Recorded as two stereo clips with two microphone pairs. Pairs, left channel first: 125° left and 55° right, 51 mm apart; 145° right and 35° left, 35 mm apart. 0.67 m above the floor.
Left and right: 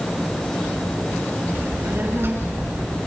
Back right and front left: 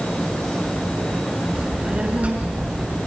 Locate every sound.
1.6 s a child speaking: 20° right, 6.5 m; by 3.0 s 15° right, 6 m